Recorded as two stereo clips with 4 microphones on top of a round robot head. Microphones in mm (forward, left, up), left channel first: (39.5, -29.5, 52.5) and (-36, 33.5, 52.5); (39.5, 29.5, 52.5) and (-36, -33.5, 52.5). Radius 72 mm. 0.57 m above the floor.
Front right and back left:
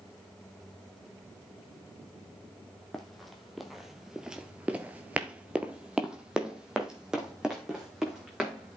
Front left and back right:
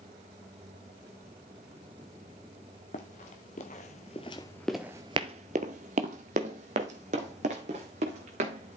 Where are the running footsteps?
50° left, 1.3 m; by 8.8 s 135° right, 2.5 m.